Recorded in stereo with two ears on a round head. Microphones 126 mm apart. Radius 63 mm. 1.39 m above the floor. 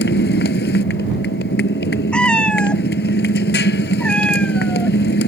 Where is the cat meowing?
5° left (ahead or behind).